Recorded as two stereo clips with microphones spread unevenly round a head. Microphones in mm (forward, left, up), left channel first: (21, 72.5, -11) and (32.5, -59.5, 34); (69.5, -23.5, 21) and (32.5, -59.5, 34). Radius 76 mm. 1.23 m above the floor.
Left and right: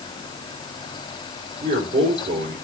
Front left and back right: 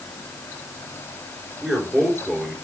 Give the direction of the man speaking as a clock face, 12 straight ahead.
2 o'clock.